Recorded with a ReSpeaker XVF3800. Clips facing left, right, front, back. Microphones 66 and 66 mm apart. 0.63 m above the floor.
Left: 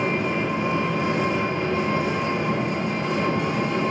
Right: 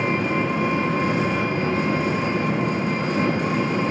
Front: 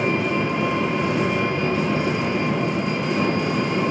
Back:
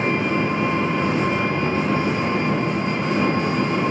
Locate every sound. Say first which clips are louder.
0.0 s an engine running: right 2 dB, back 1 dB; 130° right, 3.5 m